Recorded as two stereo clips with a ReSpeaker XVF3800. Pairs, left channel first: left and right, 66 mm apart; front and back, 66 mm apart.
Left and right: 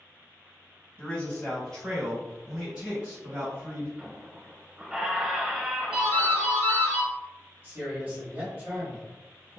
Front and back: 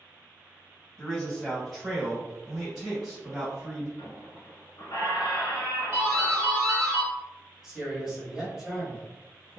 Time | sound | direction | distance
1.0 | a man speaking | 65° left | 1.7 m
4.0 | a squeak | 15° right | 0.7 m
5.9 | a doorbell | 165° right | 1.4 m
7.6 | a man speaking | 100° right | 1.2 m